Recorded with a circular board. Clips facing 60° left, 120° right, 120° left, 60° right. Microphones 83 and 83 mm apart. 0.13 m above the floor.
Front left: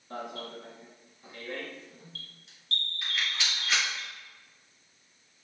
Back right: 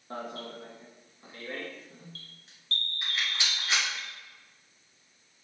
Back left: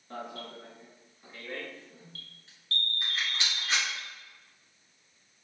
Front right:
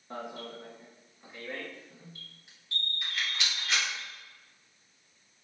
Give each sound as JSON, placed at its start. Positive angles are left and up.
{"t": 0.1, "sound": "an alarm", "azimuth_deg": -125, "distance_m": 1.1}
{"t": 3.0, "sound": "a rattle", "azimuth_deg": 175, "distance_m": 2.0}